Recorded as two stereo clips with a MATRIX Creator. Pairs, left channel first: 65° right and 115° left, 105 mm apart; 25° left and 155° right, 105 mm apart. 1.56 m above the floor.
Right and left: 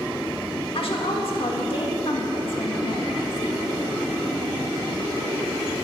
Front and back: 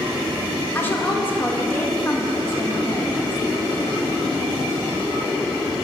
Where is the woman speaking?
45° right, 1.9 m.